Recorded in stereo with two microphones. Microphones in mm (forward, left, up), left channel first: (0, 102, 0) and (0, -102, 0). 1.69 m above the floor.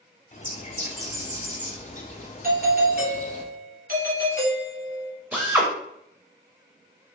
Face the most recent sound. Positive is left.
turn(degrees=-5)  # may be behind; listen again after turning